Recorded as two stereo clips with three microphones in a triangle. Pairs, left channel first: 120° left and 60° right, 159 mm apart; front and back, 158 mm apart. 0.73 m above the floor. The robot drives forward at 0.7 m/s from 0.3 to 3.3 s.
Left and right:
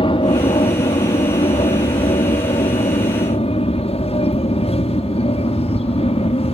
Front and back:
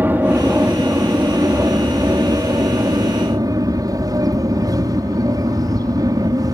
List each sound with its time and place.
0.0 s an aircraft: 110° left; by 6.5 s 125° left